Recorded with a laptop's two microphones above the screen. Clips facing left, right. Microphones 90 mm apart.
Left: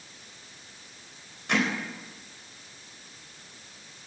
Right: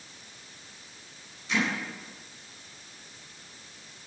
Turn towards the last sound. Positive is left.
turn(degrees=70)  # may be behind; listen again after turning